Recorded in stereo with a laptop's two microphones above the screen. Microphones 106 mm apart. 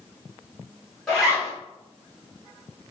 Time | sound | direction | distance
1.1 | a zipper | 5° left (ahead or behind) | 1.9 m